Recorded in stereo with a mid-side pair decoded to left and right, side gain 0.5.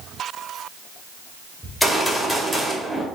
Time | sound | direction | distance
1.6 | a gunshot | straight ahead | 2 m